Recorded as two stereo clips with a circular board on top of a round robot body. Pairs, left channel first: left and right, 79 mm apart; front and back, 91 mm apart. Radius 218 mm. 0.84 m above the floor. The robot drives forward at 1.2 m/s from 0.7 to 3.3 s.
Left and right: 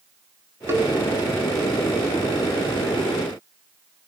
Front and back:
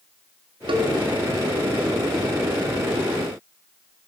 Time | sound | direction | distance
0.7 | a cowbell | 150° right | 1.8 m